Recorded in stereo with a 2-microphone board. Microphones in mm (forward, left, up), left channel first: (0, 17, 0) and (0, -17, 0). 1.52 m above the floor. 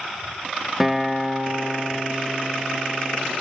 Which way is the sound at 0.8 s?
5° right (ahead or behind).